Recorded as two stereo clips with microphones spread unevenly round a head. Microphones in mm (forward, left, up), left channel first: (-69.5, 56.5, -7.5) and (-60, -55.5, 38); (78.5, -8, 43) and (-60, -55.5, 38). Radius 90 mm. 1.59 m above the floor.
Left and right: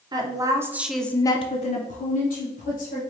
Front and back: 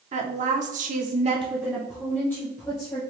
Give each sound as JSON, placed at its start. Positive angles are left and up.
{"t": 0.1, "sound": "a woman speaking", "azimuth_deg": -120, "distance_m": 1.0}